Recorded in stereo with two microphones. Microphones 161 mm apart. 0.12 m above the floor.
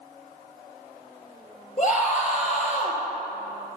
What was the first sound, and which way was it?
A scream, 50° left (ahead or behind).